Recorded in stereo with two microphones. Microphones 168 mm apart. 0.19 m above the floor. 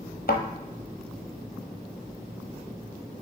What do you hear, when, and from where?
0.3 s a thud: 80° left, 1.0 m